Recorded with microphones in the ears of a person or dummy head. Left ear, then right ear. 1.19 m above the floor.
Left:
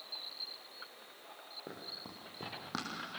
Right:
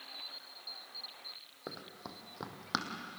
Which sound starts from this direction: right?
Running footsteps, at 1.7 s.